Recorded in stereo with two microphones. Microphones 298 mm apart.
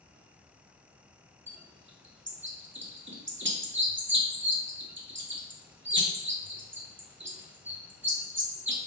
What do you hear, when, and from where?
1.5 s a bird: 40° right (ahead or behind), 0.7 m